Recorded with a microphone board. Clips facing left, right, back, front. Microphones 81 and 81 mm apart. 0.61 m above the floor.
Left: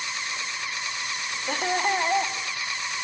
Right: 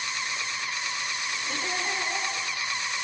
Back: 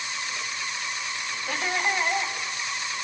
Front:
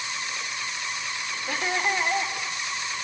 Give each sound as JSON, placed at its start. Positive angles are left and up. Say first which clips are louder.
{"t": 1.5, "sound": "laughter", "louder": "left 8 dB, front 1 dB", "azimuth_deg": 80, "distance_m": 1.7}